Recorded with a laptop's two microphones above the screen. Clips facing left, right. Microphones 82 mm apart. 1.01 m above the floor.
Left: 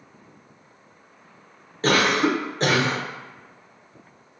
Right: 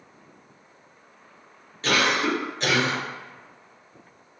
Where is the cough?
40° left (ahead or behind), 0.5 m.